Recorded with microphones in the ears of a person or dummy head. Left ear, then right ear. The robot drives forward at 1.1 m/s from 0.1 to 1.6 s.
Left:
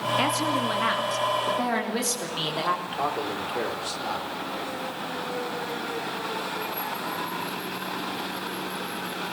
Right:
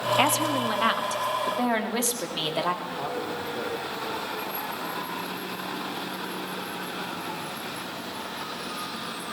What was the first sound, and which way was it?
A woman speaking, 40° right (ahead or behind).